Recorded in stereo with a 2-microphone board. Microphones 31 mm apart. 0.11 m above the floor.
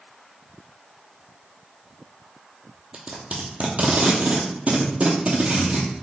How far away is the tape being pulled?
About 0.9 m.